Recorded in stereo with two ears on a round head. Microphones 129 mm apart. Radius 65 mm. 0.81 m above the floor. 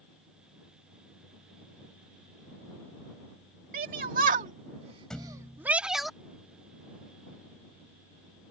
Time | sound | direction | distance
3.7 | a shout | 70° right (ahead or behind) | ?
5.1 | a thud | 5° left (ahead or behind) | ?